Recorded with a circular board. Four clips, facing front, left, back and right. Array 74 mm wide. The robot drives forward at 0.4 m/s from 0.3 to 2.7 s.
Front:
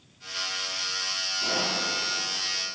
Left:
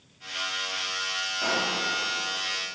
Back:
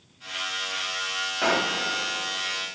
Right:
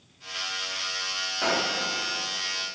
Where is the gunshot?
165° right, 3 m.